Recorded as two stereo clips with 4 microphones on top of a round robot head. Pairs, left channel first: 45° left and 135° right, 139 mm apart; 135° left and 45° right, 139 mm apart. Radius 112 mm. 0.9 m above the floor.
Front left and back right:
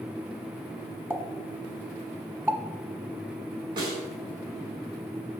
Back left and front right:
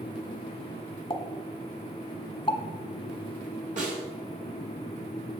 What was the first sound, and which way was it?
A pop, 155° left.